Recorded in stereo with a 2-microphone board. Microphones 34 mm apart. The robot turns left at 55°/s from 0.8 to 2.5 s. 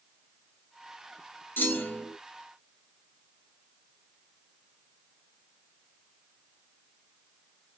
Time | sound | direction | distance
1.6 | a clunk | 85° left | 1.1 m